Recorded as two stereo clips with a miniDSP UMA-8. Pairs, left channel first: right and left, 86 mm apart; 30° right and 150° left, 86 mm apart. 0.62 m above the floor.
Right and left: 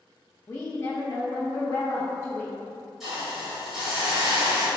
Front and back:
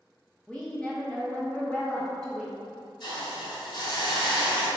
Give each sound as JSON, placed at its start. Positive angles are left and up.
{"t": 0.5, "sound": "a woman speaking", "azimuth_deg": -105, "distance_m": 0.6}
{"t": 3.0, "sound": "a hiss", "azimuth_deg": 5, "distance_m": 1.7}